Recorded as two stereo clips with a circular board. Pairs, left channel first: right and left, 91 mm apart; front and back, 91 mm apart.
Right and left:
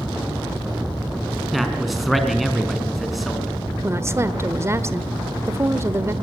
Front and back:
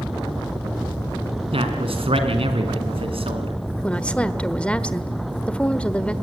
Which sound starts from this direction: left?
A woman speaking, at 3.8 s.